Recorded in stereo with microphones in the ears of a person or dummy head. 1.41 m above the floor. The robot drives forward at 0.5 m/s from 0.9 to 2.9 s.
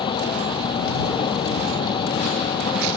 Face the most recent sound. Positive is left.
turn(degrees=15)  # may be behind; listen again after turning